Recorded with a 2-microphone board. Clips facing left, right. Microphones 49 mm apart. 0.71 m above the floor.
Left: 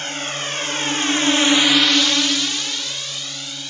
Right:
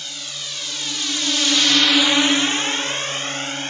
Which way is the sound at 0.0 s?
45° left (ahead or behind).